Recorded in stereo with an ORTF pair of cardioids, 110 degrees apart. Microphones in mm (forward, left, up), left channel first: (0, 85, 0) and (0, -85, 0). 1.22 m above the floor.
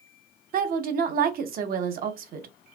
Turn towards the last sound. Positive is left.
turn(degrees=-55)